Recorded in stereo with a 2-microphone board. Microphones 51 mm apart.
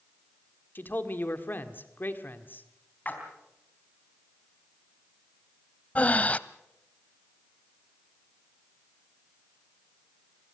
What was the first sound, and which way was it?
A man speaking, 45° left (ahead or behind).